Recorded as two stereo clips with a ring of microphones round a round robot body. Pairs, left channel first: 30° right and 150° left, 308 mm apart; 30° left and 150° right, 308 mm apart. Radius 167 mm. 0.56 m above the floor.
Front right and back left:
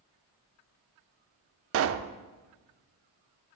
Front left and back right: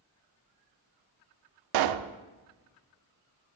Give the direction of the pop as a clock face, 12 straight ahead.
5 o'clock.